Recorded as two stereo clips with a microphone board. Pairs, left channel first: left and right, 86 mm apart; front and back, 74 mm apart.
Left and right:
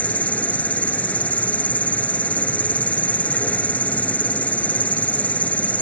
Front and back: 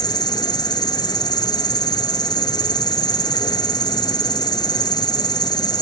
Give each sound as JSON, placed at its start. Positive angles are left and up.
{"t": 0.0, "sound": "an insect", "azimuth_deg": 20}